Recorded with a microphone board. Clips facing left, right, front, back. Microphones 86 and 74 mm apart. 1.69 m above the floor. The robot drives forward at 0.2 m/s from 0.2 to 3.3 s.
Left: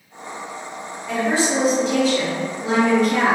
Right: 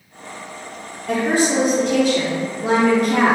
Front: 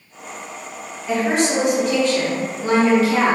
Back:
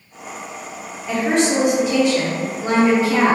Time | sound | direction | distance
1.1 | a woman speaking | 80° right | 0.6 m